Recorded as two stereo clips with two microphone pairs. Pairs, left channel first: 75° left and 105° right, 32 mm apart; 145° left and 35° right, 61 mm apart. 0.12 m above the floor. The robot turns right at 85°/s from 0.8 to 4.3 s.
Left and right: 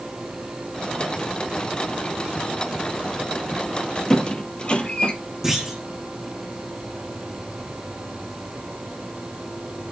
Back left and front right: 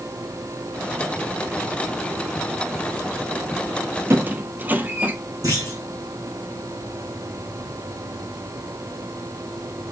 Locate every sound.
4.1 s a squeak: 5° left, 0.7 m; by 5.1 s 25° left, 0.7 m
5.4 s a clunk: 25° right, 3.5 m